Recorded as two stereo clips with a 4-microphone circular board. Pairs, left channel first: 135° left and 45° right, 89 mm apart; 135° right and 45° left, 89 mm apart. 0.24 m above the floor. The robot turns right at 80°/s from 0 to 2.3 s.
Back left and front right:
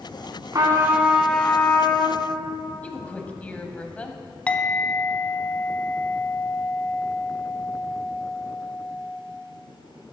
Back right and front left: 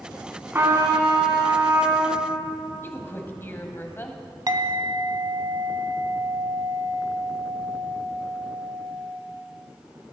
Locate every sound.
0.5 s a trumpet: 15° right, 1.6 m; by 2.2 s 120° left, 1.6 m
2.8 s a woman speaking: 165° right, 1.1 m
4.5 s a clink: 65° left, 0.8 m